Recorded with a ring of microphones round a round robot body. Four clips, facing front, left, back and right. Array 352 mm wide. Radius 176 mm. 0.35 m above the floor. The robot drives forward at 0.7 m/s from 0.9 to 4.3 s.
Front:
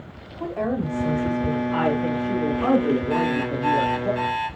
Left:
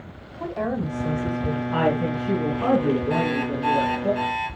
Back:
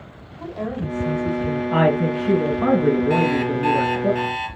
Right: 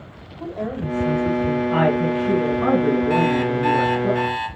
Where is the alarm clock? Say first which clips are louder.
Right 5 dB, back 3 dB; 135° right, 1.9 m; by 4.5 s 150° right, 2.5 m.